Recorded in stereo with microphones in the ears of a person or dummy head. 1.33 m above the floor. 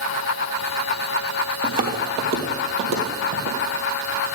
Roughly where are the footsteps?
Right.